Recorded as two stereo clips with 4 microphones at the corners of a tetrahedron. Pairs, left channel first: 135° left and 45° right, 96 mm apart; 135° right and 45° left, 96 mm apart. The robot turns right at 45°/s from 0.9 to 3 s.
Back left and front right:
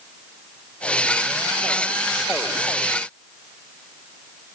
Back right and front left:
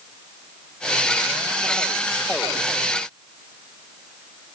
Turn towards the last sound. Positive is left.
No sound to turn to.